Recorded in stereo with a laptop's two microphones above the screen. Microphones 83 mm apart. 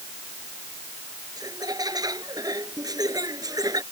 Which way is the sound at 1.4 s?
50° right (ahead or behind).